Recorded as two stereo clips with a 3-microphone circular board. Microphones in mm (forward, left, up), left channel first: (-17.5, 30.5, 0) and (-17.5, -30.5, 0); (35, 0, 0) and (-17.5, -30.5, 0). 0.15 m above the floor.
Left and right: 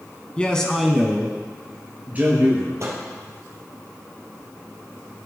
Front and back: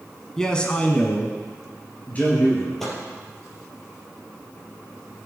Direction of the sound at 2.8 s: 55° right.